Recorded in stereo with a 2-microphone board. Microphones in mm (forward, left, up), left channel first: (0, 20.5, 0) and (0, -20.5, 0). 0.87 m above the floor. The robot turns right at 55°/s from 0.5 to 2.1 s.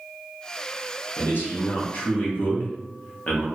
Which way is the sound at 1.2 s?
80° left.